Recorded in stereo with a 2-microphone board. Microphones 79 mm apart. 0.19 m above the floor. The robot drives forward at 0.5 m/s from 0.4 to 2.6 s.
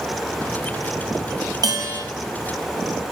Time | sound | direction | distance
1.6 | a bell | 50° right (ahead or behind) | 4.5 m